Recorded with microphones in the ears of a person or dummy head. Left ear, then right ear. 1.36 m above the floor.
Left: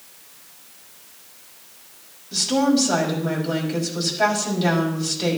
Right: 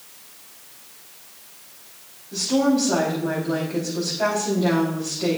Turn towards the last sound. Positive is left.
turn(degrees=70)  # may be behind; listen again after turning